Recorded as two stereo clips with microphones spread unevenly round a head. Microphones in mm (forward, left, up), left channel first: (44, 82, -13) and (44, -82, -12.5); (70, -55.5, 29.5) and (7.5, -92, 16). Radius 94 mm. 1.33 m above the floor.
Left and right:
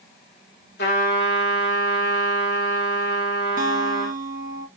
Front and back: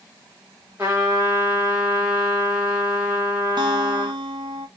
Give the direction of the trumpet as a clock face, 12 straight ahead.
8 o'clock.